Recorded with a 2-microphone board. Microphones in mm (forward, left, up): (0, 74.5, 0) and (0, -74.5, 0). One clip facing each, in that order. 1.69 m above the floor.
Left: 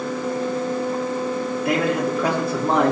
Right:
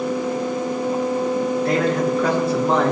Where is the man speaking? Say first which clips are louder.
Left 1 dB; 10° left (ahead or behind), 3 m.